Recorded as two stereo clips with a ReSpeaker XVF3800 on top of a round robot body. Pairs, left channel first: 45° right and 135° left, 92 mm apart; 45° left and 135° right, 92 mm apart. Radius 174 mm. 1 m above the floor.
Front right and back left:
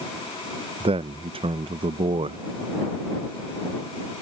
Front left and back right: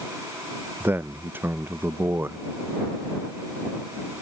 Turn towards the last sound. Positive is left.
turn(degrees=155)